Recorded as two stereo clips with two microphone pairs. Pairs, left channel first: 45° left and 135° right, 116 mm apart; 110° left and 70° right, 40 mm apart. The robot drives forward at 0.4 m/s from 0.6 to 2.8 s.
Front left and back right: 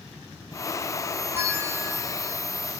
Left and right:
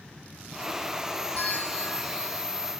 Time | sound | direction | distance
1.3 | a bell | 155° left | 0.7 m